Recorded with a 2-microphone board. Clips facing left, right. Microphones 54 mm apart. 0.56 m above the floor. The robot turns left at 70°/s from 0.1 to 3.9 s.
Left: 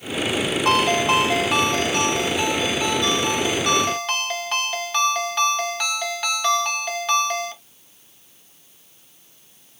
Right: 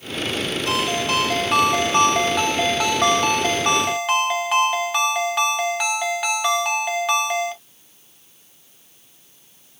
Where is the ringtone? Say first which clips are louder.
Left 5 dB; 60° left, 1.7 m; by 7.6 s 170° right, 1.7 m.